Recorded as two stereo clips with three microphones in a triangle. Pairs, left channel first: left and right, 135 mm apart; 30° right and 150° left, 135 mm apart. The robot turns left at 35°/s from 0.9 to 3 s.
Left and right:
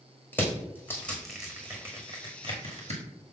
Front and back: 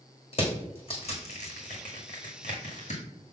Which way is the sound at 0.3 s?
15° left.